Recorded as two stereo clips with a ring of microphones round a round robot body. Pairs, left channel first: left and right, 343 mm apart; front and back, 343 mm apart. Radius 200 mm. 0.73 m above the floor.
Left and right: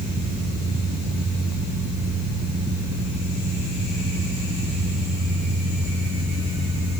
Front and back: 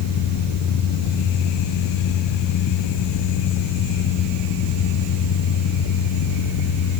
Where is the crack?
No crack in this recording.